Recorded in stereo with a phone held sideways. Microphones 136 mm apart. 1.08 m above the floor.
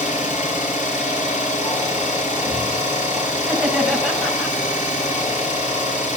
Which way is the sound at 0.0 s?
85° left.